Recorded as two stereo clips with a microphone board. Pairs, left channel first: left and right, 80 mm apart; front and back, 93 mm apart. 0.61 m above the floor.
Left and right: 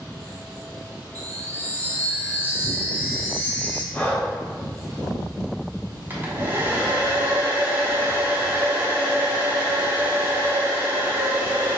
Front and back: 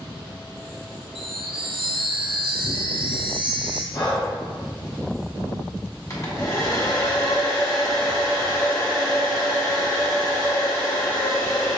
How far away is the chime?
About 0.6 m.